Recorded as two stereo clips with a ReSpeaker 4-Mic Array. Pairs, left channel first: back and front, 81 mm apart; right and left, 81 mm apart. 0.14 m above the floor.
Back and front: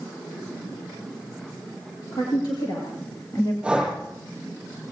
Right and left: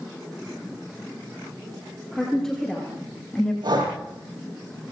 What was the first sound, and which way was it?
A woman speaking, 175° right.